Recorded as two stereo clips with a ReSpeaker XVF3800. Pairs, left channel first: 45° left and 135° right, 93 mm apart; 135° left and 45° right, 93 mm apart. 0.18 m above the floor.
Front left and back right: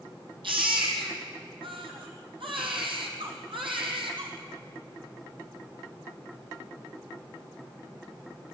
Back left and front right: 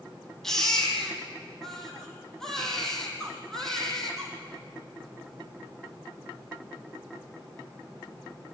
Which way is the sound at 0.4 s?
140° right.